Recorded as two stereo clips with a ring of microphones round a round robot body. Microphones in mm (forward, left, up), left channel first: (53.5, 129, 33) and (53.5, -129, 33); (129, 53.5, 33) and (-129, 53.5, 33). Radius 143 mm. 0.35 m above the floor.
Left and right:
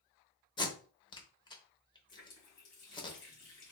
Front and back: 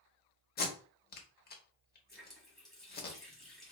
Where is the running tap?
90° left, 1.8 m.